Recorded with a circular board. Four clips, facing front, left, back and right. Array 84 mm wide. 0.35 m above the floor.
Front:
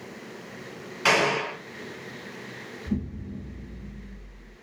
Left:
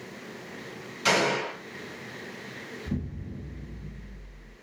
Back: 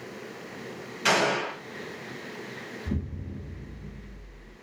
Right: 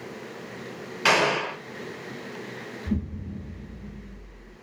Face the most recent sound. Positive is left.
turn(degrees=-130)